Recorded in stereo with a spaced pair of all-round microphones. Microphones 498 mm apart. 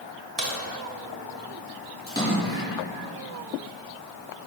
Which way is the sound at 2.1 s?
10° left (ahead or behind).